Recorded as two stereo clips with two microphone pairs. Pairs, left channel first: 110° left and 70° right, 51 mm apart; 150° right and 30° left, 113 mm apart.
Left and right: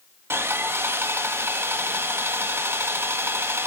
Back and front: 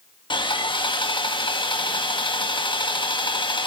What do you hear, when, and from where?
0.3 s sawing: 110° right, 1.3 m